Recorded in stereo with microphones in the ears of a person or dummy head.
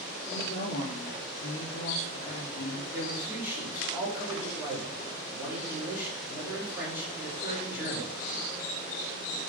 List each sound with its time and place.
0.3 s a woman speaking: 60° left (ahead or behind), 3 m
2.9 s a man speaking: 10° right (ahead or behind), 3.5 m